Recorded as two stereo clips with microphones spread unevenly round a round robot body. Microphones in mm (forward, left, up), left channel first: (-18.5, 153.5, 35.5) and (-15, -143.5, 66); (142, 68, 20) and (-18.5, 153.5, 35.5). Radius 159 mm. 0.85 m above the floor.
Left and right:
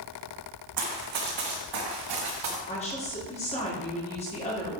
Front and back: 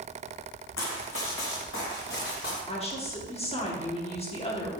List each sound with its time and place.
0.8 s running footsteps: 70° right, 2.5 m; by 2.6 s 90° right, 4.5 m
2.7 s a woman speaking: 25° left, 2.5 m